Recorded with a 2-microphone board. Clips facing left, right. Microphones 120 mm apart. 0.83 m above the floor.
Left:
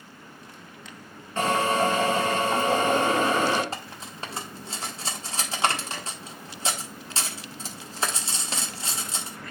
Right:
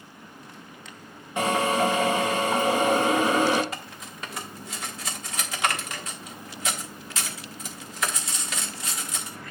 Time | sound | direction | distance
1.4 | a drill | 10° right (ahead or behind) | 2.5 m
3.7 | cutlery clinking | 30° left (ahead or behind) | 1.2 m